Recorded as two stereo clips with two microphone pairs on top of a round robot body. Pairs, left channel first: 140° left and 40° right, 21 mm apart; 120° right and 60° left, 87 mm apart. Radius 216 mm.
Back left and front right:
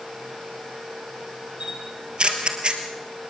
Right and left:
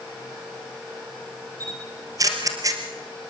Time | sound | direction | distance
1.6 | a camera shutter | 5° left | 2.5 m